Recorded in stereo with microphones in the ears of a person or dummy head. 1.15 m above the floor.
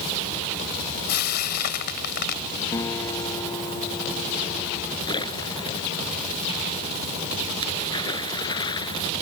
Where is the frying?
60° left (ahead or behind).